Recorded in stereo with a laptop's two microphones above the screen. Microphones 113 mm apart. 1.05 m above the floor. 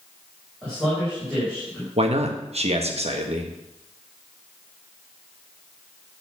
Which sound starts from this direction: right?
A man speaking, at 2.0 s.